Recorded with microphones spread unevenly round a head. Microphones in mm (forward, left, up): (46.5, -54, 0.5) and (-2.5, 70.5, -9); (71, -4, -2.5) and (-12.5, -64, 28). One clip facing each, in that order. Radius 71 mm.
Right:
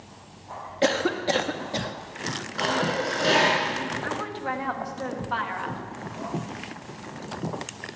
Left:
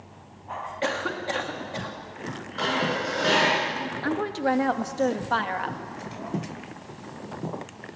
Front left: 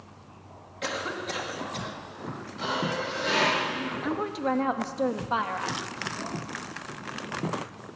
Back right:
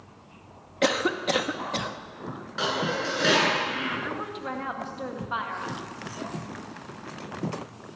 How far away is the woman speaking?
About 1.8 m.